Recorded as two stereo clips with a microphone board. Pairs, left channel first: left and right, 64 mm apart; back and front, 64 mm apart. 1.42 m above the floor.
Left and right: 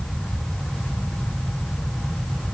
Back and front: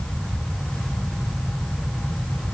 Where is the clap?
No clap in this recording.